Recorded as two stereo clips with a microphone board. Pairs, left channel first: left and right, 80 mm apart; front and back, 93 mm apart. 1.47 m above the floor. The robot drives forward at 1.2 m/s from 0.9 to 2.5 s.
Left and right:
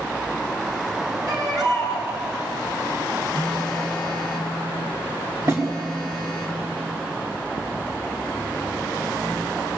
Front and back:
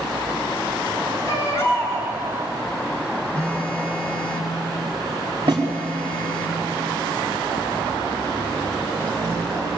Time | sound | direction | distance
1.3 | a baby crying | 55° right | 6 m
3.3 | a phone buzzing | 80° right | 3.5 m
5.5 | a snare drum | 145° right | 5 m